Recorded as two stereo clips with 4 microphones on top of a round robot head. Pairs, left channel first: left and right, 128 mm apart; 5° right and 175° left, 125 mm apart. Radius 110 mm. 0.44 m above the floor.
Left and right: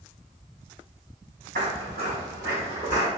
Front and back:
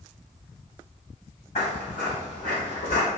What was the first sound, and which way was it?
Footsteps, 55° right.